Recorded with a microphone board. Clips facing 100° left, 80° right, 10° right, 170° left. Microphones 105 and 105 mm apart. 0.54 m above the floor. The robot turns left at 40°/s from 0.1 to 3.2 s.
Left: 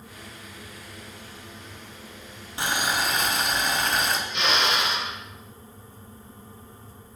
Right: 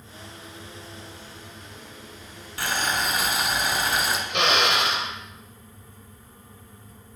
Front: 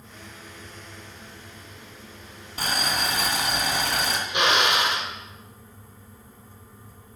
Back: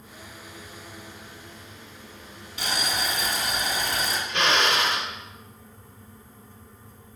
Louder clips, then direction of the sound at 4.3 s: Right 5 dB, front 1 dB; 85° right.